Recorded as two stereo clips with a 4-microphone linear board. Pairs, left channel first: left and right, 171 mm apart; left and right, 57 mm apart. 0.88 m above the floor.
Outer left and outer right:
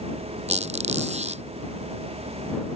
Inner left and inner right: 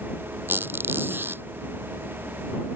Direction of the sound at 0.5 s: 40° right (ahead or behind).